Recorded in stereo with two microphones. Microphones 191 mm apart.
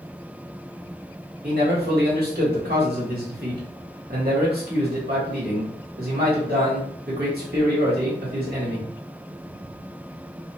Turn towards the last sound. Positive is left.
turn(degrees=-55)  # may be behind; listen again after turning